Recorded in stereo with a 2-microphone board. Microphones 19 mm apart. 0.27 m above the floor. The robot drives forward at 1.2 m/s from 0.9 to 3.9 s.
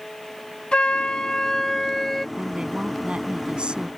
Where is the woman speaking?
55° right (ahead or behind).